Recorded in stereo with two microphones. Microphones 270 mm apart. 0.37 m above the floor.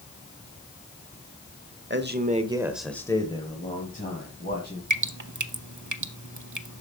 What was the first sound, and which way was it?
A man speaking, 40° right (ahead or behind).